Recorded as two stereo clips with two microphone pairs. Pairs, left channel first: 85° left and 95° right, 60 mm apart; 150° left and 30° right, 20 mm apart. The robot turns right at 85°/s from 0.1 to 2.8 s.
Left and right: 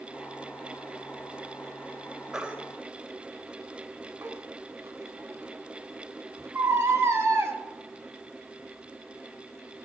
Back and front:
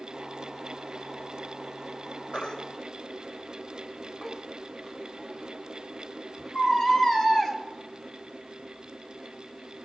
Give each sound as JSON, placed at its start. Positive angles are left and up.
{"t": 2.3, "sound": "a baby crying", "azimuth_deg": 180, "distance_m": 1.6}